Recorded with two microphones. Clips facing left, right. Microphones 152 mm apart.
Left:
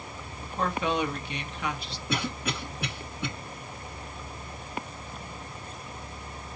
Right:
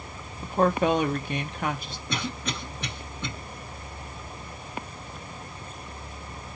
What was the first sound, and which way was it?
A woman speaking, 45° right (ahead or behind).